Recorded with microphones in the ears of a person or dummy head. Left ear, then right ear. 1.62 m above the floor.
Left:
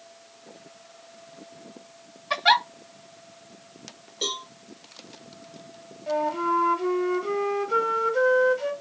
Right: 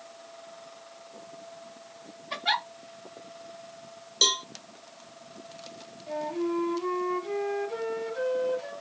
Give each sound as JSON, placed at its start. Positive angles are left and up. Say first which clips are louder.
{"t": 2.3, "sound": "a giggle", "louder": "left 8 dB", "side_deg": 45, "distance_m": 1.3}
{"t": 4.2, "sound": "a cowbell", "louder": "right 6 dB", "side_deg": -35, "distance_m": 0.7}
{"t": 6.1, "sound": "a flute", "louder": "left 7 dB", "side_deg": 50, "distance_m": 1.1}